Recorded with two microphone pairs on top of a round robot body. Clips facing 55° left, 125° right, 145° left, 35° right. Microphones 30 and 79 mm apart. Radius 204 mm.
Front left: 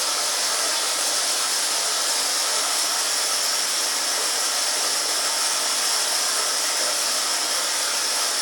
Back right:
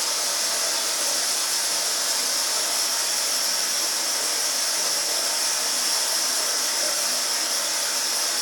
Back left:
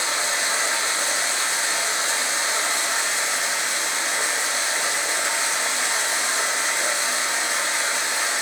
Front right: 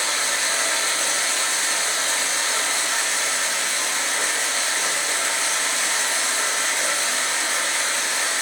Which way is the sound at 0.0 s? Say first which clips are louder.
Front left 2 dB, even; 75° left.